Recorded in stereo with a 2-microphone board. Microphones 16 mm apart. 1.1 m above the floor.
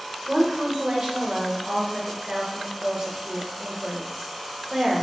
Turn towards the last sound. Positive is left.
turn(degrees=-50)  # may be behind; listen again after turning